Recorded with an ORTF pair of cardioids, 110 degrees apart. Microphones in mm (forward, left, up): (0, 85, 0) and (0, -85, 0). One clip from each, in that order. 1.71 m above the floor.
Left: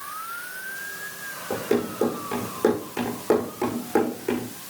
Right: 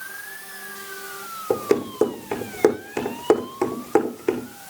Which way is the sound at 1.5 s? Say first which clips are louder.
Right 4 dB; 60° right.